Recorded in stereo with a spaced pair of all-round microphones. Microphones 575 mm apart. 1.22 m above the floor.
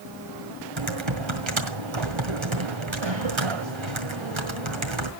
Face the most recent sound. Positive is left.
turn(degrees=-50)  # may be behind; listen again after turning